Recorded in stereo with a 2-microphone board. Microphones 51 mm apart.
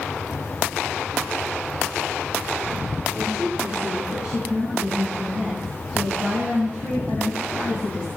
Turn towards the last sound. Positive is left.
turn(degrees=20)  # may be behind; listen again after turning